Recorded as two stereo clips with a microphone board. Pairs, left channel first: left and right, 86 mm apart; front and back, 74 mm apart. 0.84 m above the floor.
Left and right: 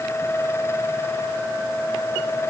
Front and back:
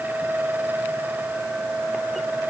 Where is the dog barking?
I don't hear a dog barking.